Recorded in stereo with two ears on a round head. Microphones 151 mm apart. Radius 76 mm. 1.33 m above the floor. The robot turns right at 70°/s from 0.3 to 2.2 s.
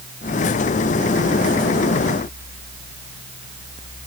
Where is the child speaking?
I don't hear a child speaking.